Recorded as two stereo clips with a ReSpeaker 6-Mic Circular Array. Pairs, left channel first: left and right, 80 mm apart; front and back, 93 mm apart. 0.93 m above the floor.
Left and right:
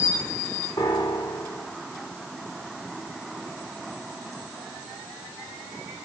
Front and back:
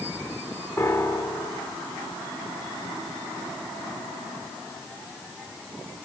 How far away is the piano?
About 3 m.